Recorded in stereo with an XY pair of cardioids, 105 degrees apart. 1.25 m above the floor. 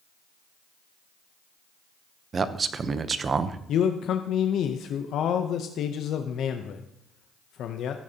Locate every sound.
2.3 s a man speaking: 40° right, 0.8 m
3.7 s a man speaking: 70° left, 0.7 m